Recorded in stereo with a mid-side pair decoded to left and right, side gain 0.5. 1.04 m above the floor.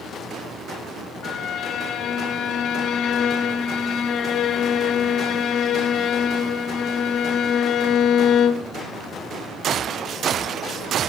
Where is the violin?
60° left, 0.7 m.